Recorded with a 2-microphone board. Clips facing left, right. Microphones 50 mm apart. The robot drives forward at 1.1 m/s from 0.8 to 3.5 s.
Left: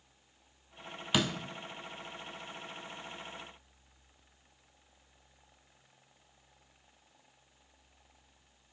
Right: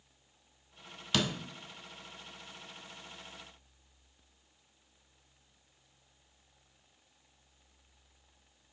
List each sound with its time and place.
1.1 s a door slam: 15° left (ahead or behind), 0.8 m; by 1.4 s 10° left (ahead or behind), 1.0 m